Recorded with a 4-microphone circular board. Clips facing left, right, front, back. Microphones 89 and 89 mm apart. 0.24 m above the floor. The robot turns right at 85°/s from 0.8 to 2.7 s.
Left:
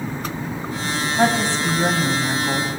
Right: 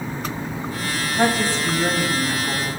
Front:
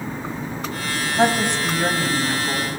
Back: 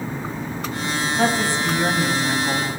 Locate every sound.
1.2 s a woman speaking: 25° left, 1.4 m; by 2.7 s 155° left, 1.4 m